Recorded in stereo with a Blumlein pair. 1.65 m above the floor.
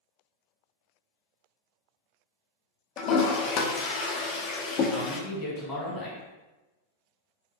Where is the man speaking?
25° left, 1.1 m.